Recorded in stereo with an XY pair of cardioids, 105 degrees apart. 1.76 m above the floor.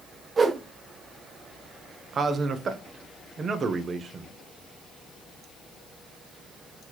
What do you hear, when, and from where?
0.4 s a whoosh: 35° right, 0.8 m
2.1 s a man speaking: 40° right, 0.9 m